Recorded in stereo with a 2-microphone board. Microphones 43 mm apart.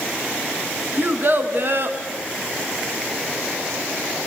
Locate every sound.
1.0 s a child speaking: 40° right (ahead or behind), 3.5 m; by 2.0 s 50° right (ahead or behind), 2.5 m